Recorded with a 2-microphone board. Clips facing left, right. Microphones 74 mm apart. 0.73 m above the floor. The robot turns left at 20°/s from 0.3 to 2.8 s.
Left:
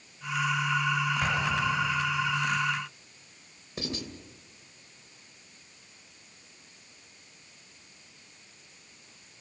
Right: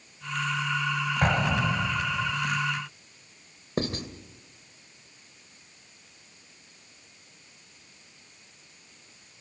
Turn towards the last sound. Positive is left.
turn(degrees=-45)  # may be behind; listen again after turning